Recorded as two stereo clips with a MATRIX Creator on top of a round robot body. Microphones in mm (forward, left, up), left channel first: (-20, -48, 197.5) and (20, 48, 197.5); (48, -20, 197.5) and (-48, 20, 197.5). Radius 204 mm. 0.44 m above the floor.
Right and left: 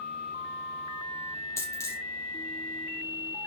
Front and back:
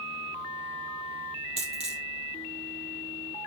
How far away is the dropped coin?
About 4 m.